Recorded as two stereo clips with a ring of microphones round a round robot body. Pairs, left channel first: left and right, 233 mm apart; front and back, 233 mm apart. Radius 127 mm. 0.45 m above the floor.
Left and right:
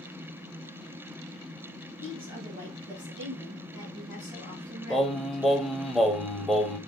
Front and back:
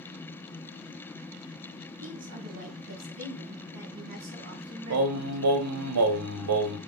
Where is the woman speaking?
155° right, 3 m; by 5.4 s 165° right, 4.5 m.